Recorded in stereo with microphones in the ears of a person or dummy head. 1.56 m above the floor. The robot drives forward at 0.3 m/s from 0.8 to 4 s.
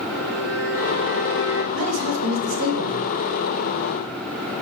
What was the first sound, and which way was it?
A violin, 60° right (ahead or behind).